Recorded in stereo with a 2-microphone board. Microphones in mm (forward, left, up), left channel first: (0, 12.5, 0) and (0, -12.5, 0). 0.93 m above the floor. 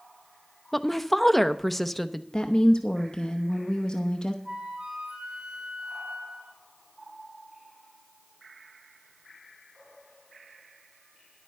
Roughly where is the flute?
Right.